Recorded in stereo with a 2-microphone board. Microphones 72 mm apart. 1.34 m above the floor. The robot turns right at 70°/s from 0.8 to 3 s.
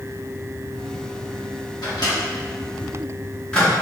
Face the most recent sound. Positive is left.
turn(degrees=15)  # may be behind; listen again after turning